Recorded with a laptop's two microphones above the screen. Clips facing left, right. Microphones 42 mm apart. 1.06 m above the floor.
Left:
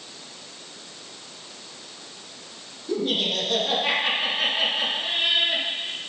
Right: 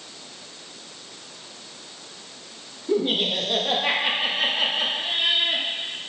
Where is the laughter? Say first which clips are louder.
Right 2 dB; 25° right (ahead or behind), 1.4 m; by 5.7 s centre (ahead or behind), 2.5 m.